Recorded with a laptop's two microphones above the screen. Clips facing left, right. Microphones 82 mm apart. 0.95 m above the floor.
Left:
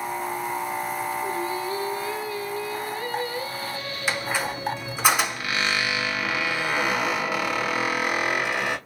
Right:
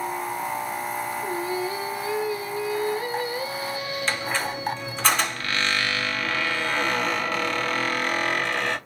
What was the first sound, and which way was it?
Singing, 15° right (ahead or behind).